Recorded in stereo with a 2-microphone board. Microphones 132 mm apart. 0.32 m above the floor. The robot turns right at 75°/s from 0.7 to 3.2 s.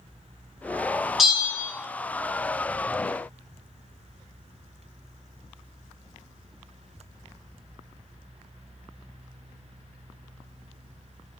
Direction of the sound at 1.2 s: Straight behind.